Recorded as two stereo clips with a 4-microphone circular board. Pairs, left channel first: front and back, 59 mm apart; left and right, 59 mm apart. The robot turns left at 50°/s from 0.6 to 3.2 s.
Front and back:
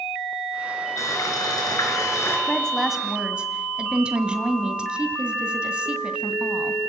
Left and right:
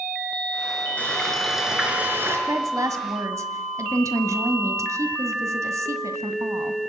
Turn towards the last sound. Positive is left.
turn(degrees=-110)